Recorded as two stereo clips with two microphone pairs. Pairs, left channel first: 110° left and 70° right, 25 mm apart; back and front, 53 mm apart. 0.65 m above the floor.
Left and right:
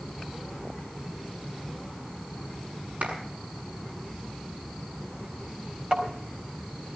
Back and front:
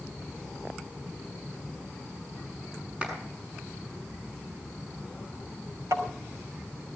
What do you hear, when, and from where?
3.0 s a clap: 75° right, 6.5 m
5.9 s tapping: 15° right, 4.5 m